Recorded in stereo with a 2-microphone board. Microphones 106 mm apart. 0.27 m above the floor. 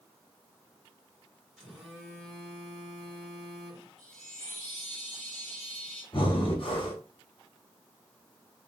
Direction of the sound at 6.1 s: 55° left (ahead or behind).